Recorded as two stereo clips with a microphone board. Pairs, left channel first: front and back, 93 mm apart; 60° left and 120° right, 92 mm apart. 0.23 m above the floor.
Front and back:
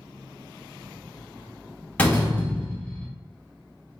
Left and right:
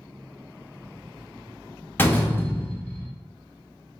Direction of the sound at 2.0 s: 45° left.